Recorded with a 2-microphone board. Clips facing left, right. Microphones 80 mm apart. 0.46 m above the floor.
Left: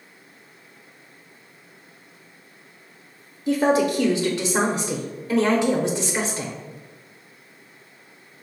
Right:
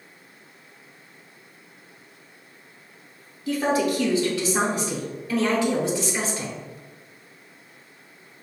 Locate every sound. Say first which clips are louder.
3.5 s a woman speaking: left 3 dB; 25° left (ahead or behind), 0.8 m